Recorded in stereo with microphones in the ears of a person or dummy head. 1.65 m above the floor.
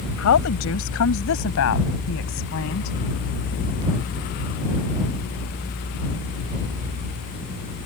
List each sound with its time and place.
0.2 s a woman speaking: 70° left (ahead or behind)